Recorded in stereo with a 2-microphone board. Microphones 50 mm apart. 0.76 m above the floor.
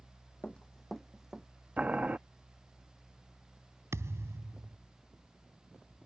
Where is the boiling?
30° right (ahead or behind).